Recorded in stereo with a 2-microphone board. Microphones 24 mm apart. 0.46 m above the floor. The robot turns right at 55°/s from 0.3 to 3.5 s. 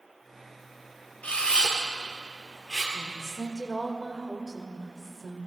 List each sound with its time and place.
1.2 s a camera shutter: 70° left (ahead or behind), 3 m; by 2.8 s 20° right (ahead or behind), 3 m
2.9 s a woman speaking: 145° left, 2 m; by 5.5 s 175° left, 2 m